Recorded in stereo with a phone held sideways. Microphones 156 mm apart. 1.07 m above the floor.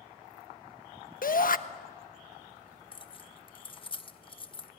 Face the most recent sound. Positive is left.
turn(degrees=35)  # may be behind; listen again after turning